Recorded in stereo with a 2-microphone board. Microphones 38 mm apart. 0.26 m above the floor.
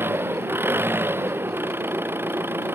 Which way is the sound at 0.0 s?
90° right.